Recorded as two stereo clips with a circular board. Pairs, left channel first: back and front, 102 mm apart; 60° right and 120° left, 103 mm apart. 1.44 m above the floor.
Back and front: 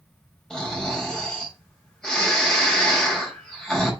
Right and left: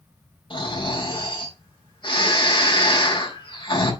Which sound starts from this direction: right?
Snoring, at 0.5 s.